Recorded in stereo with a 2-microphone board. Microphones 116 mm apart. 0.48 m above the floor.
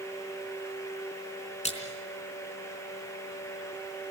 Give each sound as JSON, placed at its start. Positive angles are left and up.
{"t": 1.6, "sound": "a splash", "side_deg": 75, "distance_m": 4.0}